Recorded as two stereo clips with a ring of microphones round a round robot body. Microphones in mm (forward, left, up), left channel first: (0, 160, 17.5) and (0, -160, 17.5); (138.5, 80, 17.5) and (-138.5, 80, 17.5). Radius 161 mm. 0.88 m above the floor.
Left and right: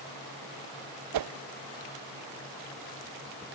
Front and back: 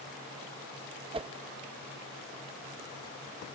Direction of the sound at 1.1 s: 110° right.